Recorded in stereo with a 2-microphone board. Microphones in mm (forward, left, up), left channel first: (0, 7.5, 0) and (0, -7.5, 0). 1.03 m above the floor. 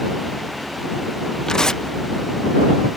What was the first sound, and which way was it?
Tearing paper, 55° left (ahead or behind).